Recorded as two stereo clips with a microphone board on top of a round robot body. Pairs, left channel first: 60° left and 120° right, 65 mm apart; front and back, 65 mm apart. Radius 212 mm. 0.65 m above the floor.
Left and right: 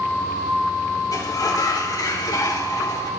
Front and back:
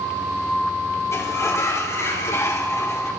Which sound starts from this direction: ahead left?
A sliding door, at 1.1 s.